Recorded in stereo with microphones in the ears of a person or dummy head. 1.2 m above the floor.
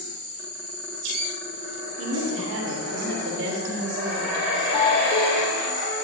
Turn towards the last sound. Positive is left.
turn(degrees=30)  # may be behind; listen again after turning